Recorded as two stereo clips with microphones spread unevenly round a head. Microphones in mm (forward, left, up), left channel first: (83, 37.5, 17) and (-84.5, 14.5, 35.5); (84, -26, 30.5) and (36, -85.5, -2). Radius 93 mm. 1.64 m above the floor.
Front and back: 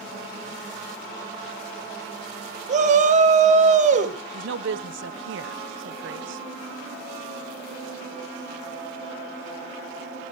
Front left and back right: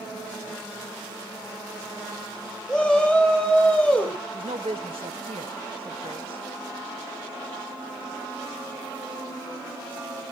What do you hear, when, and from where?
2.7 s a shout: 140° left, 3 m
4.3 s a woman speaking: straight behind, 1.1 m